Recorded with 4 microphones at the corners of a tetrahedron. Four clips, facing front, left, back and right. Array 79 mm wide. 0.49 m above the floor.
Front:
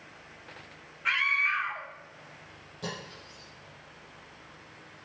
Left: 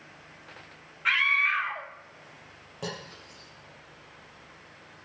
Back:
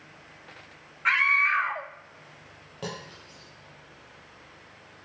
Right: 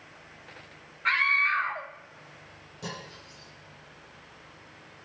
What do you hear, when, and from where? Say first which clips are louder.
1.1 s a scream: even, back 5 dB; 155° right, 0.8 m
2.8 s cutlery clinking: left 2 dB, back 1 dB; 140° left, 9.5 m